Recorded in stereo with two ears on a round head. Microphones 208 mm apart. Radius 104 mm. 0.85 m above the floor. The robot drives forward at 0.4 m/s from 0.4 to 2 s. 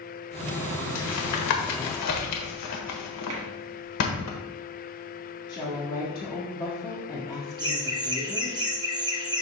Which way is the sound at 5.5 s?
20° left (ahead or behind).